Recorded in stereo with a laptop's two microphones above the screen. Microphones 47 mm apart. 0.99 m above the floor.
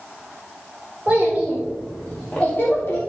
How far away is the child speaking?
About 1.4 m.